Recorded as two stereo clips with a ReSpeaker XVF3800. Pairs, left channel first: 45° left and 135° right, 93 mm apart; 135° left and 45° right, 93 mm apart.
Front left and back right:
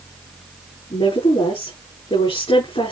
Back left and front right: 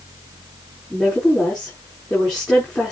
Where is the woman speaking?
50° left, 7.5 m.